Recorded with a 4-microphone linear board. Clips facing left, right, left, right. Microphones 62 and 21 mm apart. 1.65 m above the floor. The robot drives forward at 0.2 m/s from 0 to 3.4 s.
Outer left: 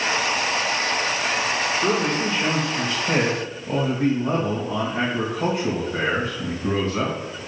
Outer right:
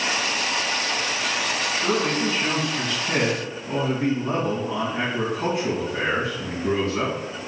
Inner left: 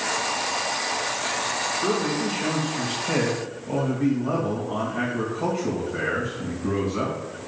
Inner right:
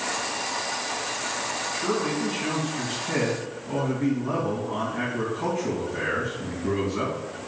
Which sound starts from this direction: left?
A man speaking, at 1.7 s.